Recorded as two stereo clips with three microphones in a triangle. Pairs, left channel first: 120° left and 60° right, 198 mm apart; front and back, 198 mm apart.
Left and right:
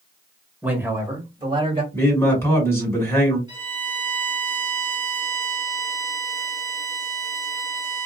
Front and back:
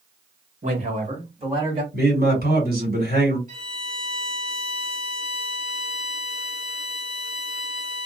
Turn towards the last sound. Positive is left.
turn(degrees=-130)